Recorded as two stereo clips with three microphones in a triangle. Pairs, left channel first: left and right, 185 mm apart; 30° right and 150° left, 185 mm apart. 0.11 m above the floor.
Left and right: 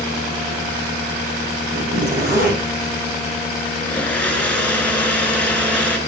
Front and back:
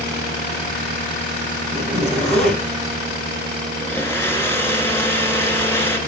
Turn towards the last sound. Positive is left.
turn(degrees=20)